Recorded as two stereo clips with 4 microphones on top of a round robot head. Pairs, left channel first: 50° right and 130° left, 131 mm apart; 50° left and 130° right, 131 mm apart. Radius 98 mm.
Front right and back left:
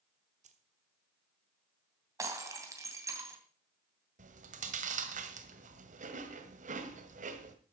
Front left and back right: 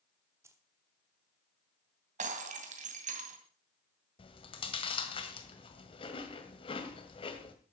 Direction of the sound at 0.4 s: 160° left.